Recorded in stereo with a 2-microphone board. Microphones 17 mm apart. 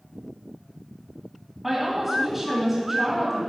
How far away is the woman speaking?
About 1.5 m.